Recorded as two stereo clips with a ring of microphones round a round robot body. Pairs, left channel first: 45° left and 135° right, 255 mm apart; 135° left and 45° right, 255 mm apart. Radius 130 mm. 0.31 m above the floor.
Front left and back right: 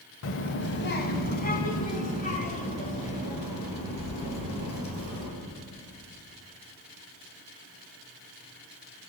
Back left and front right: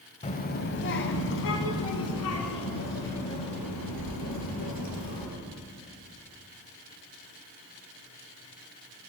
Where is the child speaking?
75° left, 0.8 m; by 5.3 s 110° left, 4 m.